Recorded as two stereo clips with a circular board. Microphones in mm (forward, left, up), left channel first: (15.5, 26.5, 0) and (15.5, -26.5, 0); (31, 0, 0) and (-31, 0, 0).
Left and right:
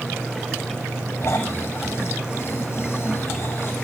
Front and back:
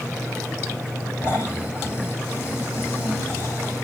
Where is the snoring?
45° left, 6.5 m.